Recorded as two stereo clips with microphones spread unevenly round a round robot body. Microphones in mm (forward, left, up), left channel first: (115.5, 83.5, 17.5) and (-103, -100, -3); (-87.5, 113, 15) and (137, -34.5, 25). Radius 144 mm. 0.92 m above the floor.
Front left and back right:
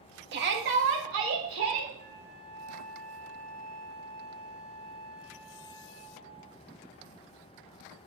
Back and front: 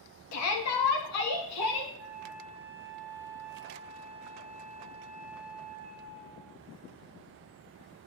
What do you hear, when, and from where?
0.3 s a shout: 170° left, 1.3 m; by 1.9 s straight behind, 2 m
2.0 s a flute: 120° right, 4.5 m